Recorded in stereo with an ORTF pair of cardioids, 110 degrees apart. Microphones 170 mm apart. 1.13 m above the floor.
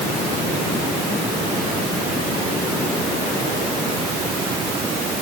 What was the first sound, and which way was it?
Only background noise.